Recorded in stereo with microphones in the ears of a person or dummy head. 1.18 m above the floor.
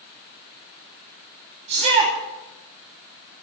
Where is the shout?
30° right (ahead or behind), 2.5 m.